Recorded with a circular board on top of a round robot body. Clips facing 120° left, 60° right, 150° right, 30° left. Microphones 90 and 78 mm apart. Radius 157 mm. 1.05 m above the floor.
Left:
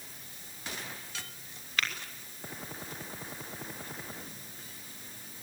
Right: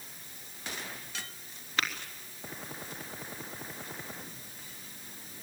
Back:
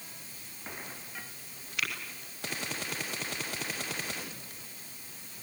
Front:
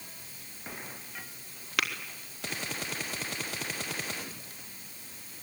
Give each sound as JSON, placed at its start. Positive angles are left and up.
{"t": 1.8, "sound": "tapping", "azimuth_deg": 10, "distance_m": 3.5}